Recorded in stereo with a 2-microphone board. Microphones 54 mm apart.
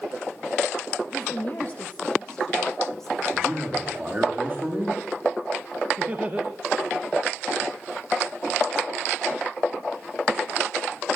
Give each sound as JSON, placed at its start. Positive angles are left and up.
{"t": 1.0, "sound": "a woman speaking", "side_deg": 35, "distance_m": 4.0}
{"t": 3.3, "sound": "a man speaking", "side_deg": -35, "distance_m": 7.5}
{"t": 6.0, "sound": "laughter", "side_deg": -25, "distance_m": 1.4}